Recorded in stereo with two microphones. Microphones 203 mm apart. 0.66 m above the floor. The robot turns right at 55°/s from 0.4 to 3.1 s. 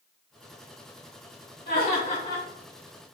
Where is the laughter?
115° left, 1.9 m; by 2.5 s 155° left, 1.9 m.